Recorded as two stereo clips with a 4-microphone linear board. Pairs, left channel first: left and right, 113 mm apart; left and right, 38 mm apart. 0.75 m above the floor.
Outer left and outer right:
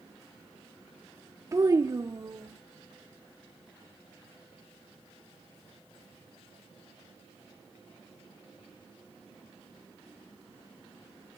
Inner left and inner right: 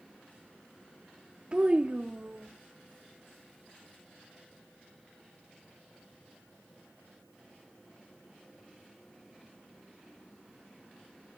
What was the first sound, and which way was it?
A child speaking, 30° right (ahead or behind).